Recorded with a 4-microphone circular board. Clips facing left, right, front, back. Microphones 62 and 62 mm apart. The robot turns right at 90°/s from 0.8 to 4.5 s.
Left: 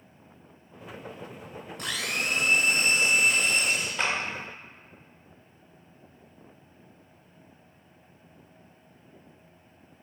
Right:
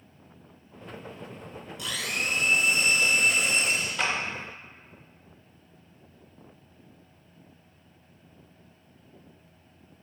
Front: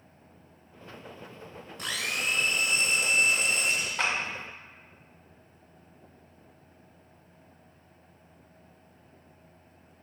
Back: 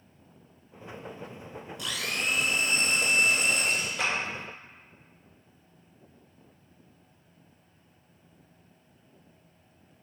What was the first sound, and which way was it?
A blender, 45° left.